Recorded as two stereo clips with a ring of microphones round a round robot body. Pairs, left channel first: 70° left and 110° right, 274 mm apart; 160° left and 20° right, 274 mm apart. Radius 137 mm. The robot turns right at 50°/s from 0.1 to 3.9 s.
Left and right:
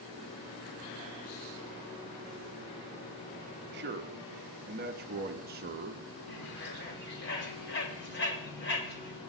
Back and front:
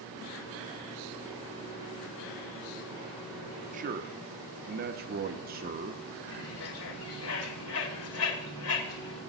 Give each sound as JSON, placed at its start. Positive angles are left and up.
{"t": 3.7, "sound": "a man speaking", "azimuth_deg": -75, "distance_m": 0.9}
{"t": 6.3, "sound": "a bird", "azimuth_deg": 120, "distance_m": 2.5}